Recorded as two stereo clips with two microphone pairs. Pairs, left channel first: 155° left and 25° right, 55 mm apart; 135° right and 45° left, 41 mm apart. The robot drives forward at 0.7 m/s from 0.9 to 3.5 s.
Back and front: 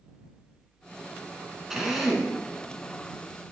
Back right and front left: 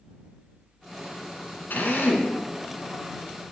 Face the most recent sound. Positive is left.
turn(degrees=-135)